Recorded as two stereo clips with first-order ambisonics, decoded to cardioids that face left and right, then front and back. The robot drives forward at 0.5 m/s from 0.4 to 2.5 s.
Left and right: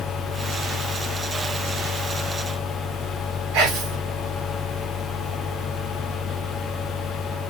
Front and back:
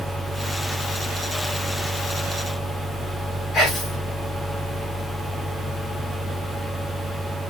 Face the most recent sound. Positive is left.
turn(degrees=-65)